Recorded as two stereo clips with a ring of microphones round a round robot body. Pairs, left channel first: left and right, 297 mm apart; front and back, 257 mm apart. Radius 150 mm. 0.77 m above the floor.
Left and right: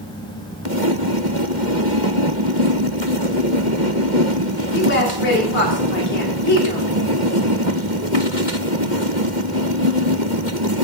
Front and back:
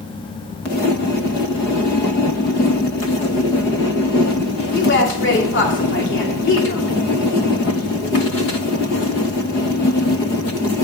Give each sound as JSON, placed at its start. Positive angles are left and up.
{"t": 4.7, "sound": "a woman speaking", "azimuth_deg": 40, "distance_m": 2.5}